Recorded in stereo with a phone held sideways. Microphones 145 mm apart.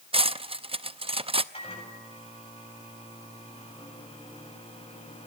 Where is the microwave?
45° left (ahead or behind), 7.5 m.